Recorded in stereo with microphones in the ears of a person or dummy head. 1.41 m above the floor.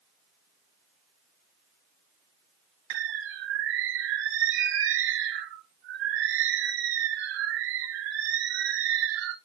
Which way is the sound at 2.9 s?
60° right (ahead or behind).